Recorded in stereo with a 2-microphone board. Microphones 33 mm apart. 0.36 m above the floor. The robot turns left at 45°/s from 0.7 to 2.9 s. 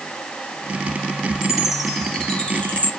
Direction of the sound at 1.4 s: 15° right (ahead or behind).